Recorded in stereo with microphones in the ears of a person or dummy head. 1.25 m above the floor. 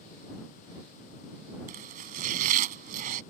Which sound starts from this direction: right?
Chopping, at 1.7 s.